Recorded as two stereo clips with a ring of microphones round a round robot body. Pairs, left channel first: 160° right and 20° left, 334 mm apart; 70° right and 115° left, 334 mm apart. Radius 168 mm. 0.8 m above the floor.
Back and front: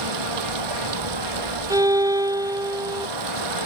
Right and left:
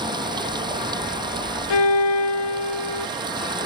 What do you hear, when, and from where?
0.0 s running water: 35° left
1.7 s a violin: 55° right